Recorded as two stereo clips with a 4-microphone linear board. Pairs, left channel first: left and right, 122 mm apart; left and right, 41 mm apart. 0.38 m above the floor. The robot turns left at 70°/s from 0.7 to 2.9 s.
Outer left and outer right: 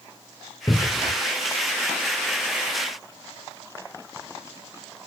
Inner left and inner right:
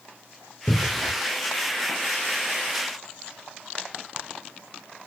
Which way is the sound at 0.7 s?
25° left (ahead or behind).